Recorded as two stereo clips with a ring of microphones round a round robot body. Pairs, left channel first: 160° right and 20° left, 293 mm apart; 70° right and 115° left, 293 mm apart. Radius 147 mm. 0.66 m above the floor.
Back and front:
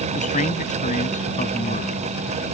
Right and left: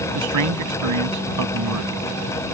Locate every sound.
0.1 s a man speaking: 140° left